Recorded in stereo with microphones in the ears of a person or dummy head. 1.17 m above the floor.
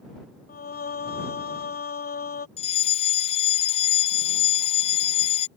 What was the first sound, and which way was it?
Singing, 40° left (ahead or behind).